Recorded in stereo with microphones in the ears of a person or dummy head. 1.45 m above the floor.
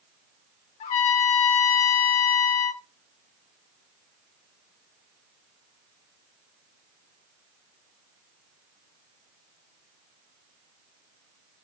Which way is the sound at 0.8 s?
35° left (ahead or behind).